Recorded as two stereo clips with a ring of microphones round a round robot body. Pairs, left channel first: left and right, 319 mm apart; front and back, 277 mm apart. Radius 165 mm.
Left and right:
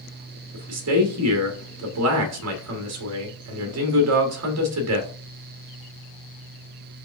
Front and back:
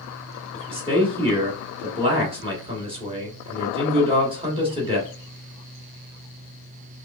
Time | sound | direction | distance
0.5 | a man speaking | 110° right | 1.2 m